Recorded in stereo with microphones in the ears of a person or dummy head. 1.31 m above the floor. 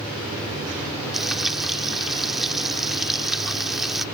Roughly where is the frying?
Centre.